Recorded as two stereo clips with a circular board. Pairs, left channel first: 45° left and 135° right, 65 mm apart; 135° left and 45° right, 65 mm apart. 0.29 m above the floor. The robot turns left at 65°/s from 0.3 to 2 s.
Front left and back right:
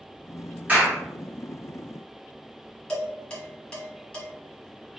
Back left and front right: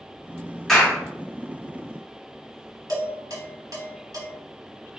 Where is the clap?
145° right, 1.3 m; by 1.0 s 165° right, 1.3 m.